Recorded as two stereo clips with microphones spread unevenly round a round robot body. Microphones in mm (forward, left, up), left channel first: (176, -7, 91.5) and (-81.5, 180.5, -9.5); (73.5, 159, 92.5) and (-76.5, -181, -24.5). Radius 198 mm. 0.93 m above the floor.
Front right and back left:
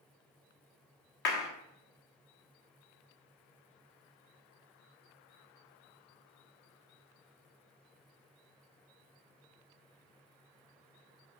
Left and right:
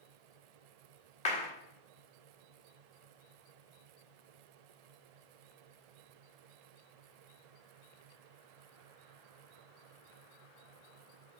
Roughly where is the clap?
Ahead.